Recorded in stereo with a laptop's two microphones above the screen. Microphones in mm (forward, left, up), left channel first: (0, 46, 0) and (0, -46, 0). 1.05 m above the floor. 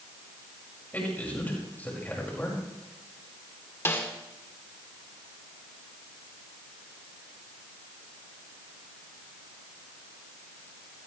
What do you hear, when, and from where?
0.9 s a man speaking: 20° left (ahead or behind), 5.5 m
3.9 s a snare drum: 25° left (ahead or behind), 2.5 m